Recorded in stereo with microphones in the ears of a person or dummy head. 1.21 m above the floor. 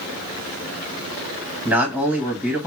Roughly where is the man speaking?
Centre.